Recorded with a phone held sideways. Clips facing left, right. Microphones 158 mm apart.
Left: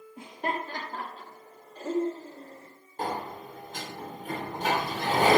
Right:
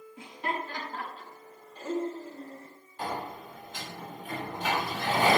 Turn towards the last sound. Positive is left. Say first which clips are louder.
# left 2 dB
turn(degrees=50)  # may be behind; listen again after turning